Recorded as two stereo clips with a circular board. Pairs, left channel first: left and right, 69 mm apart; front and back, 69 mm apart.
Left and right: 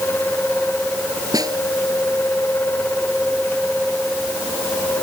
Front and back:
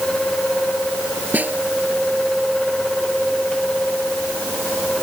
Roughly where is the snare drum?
Behind right.